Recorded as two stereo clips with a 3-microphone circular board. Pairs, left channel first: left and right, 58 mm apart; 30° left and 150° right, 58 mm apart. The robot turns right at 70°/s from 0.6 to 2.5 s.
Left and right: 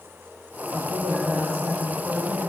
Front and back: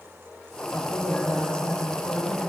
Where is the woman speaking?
90° right, 6 m; by 2.4 s 25° left, 6 m.